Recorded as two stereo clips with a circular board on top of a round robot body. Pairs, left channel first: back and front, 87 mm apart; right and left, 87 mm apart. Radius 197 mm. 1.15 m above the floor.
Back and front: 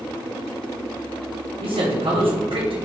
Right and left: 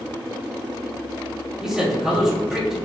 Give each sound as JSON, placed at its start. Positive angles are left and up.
{"t": 1.6, "sound": "a man speaking", "azimuth_deg": 5, "distance_m": 2.0}